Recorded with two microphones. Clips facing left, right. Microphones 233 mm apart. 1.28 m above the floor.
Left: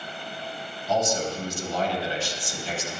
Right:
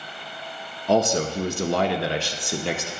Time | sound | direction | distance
0.9 | a man speaking | 70° right (ahead or behind) | 0.8 m